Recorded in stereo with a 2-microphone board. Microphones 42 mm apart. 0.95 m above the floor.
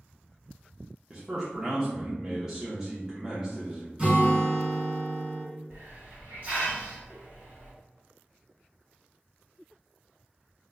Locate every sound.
1.1 s a man speaking: 15° right (ahead or behind), 0.6 m
4.0 s a guitar: 25° right (ahead or behind), 1.2 m
5.7 s a hiss: 40° right (ahead or behind), 1.0 m